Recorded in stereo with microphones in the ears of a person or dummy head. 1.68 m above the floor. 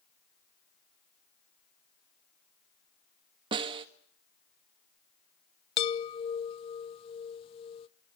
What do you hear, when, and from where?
3.5 s a snare drum: 35° right (ahead or behind), 1.2 m
5.8 s a chime: 35° left (ahead or behind), 1.0 m